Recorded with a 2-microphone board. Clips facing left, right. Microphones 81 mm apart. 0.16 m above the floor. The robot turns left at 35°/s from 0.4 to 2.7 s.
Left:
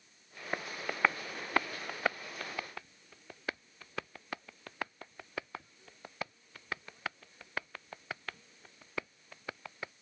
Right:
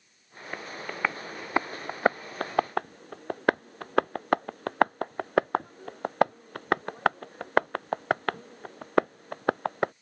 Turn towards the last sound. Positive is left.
turn(degrees=-60)  # may be behind; listen again after turning